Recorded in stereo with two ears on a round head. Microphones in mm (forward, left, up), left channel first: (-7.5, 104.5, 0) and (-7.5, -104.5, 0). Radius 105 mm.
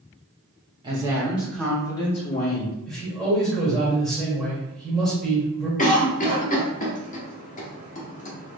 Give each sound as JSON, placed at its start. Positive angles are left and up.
{"t": 0.8, "sound": "a woman speaking", "side_deg": -20, "distance_m": 1.3}
{"t": 2.9, "sound": "a man speaking", "side_deg": 0, "distance_m": 1.8}
{"t": 5.8, "sound": "a cough", "side_deg": 35, "distance_m": 0.8}